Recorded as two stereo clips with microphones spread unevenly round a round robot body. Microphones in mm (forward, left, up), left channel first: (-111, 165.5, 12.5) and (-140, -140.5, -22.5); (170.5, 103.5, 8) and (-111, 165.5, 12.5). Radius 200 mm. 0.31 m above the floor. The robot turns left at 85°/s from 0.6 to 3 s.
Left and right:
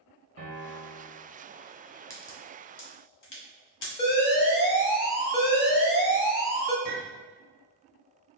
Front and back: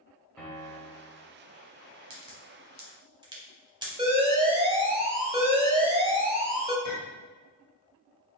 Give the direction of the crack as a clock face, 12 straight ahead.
6 o'clock.